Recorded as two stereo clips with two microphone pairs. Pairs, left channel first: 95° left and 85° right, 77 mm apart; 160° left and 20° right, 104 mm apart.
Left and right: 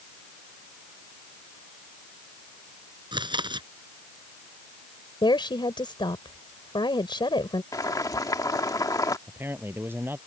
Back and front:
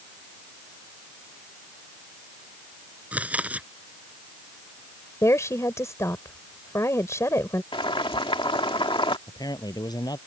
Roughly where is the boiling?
Behind left.